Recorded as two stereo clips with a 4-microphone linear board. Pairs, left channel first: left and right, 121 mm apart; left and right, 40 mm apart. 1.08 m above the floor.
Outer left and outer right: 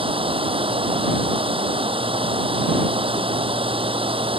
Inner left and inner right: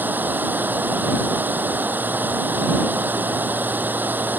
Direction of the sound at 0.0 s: 50° right (ahead or behind).